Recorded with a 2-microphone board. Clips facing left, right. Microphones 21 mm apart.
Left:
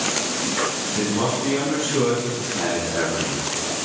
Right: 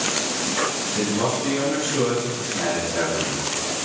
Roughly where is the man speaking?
Left.